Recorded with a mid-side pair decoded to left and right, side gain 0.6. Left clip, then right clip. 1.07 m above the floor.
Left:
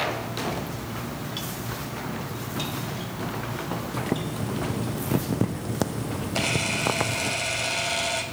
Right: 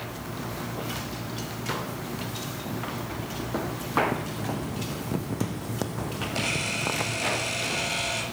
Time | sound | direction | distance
3.9 | boiling | 20° left | 0.8 m
6.3 | a camera shutter | 15° left | 6.5 m